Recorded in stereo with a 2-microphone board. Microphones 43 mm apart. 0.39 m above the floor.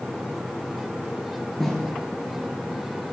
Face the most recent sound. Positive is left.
turn(degrees=5)  # may be behind; listen again after turning